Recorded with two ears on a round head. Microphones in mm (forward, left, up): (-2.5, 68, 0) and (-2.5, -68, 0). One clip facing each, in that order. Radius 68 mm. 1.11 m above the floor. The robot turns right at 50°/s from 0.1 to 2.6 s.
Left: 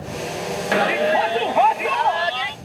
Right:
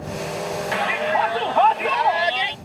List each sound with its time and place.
0.7 s a shout: 120° left; by 2.5 s 150° right